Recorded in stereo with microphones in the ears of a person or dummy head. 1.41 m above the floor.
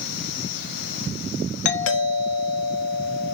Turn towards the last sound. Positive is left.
turn(degrees=70)  # may be behind; listen again after turning